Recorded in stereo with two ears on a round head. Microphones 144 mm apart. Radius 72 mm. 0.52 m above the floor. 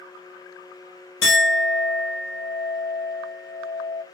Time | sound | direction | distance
1.2 | a clink | 80° left | 1.3 m